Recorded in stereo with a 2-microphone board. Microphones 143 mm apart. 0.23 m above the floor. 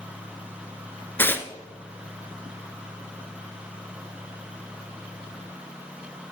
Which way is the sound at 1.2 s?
15° left (ahead or behind).